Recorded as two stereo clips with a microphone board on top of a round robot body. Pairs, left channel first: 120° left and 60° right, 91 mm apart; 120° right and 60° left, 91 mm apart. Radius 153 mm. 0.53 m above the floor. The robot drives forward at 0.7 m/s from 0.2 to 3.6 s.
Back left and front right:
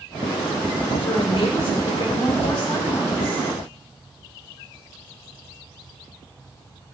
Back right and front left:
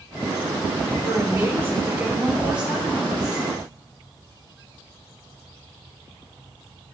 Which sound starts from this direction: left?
A woman speaking, at 1.0 s.